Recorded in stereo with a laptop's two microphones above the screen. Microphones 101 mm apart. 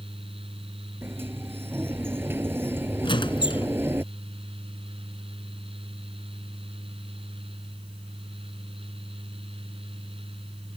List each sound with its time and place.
0.0 s a fan: 65° right (ahead or behind)
1.0 s a sliding door: 20° right (ahead or behind)
3.0 s a squeak: 50° left (ahead or behind)